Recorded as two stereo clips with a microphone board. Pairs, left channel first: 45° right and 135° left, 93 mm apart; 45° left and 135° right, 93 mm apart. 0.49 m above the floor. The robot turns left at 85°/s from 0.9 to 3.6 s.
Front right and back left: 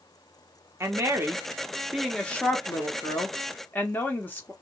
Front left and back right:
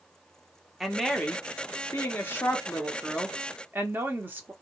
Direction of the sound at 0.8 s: 140° left.